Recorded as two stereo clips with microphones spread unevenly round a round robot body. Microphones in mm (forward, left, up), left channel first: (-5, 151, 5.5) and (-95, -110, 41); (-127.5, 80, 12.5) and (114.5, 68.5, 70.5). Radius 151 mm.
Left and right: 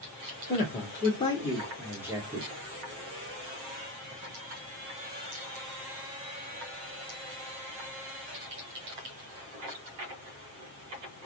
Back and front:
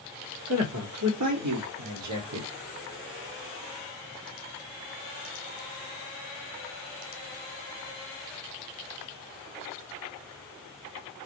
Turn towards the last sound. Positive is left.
turn(degrees=-40)